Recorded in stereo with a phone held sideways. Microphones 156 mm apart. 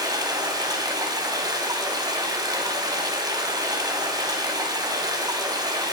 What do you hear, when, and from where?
0.0 s running water: 25° right (ahead or behind), 3 m